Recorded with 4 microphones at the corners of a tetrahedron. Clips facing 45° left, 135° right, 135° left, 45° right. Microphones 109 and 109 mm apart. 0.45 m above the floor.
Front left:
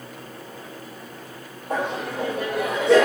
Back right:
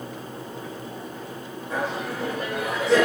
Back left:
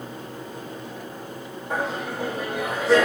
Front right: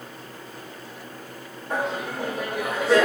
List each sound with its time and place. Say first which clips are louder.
1.7 s laughter: front left 2 dB, even; 50° left, 1.4 m